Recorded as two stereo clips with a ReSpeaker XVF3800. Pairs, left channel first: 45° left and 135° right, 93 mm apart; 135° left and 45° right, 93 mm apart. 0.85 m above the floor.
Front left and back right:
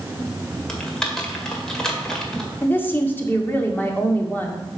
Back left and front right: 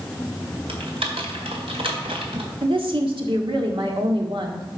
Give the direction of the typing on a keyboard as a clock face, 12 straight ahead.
1 o'clock.